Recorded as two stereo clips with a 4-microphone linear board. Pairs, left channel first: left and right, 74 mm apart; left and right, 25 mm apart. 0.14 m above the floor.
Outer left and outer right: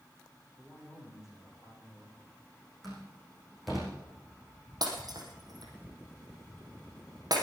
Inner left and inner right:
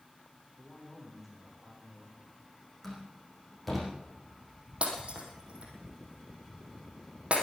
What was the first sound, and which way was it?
A man speaking, 5° right (ahead or behind).